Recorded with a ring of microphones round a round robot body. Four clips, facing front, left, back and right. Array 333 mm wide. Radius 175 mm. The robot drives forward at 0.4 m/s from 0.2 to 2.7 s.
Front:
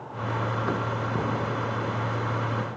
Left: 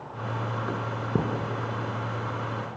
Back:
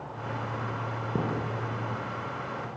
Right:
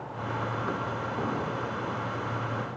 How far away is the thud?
About 4.5 m.